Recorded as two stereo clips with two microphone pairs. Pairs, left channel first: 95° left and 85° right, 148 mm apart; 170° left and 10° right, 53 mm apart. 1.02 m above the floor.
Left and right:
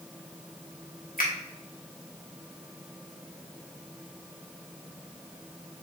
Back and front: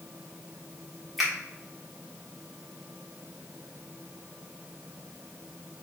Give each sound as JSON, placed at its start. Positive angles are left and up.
{"t": 1.2, "sound": "a finger snap", "azimuth_deg": 80, "distance_m": 1.6}